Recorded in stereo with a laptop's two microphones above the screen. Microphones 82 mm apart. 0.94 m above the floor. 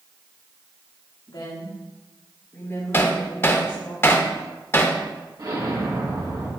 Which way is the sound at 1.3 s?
65° left (ahead or behind).